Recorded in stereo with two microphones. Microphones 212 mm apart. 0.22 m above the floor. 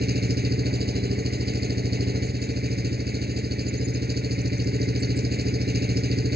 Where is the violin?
No violin in this recording.